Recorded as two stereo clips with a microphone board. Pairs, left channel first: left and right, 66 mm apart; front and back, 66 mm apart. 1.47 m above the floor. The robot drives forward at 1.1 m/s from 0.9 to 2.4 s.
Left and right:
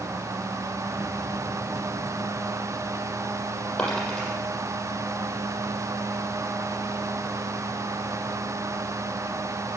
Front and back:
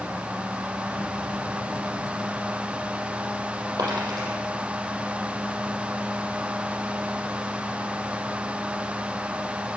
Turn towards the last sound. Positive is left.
turn(degrees=165)